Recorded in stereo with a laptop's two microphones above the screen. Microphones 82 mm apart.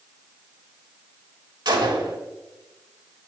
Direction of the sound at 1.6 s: 65° right (ahead or behind).